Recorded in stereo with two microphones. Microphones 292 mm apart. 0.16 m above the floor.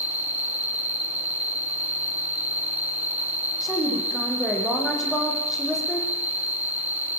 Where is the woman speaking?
Centre (ahead or behind), 7 m.